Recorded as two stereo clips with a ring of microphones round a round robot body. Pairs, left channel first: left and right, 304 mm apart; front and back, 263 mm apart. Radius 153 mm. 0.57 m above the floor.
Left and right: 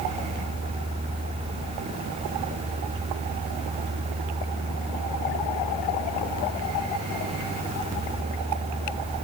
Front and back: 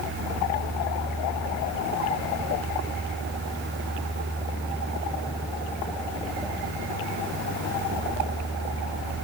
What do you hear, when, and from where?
Only background noise.